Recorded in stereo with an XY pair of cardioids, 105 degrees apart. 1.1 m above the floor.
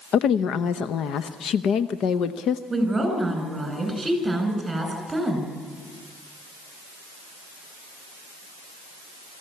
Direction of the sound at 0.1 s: 65° left.